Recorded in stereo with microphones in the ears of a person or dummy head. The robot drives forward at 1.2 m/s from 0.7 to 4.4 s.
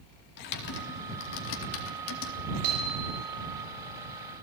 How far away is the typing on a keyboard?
About 4 m.